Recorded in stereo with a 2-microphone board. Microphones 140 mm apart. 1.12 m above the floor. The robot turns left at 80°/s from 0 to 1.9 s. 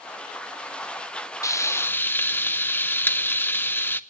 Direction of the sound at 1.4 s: 20° left (ahead or behind).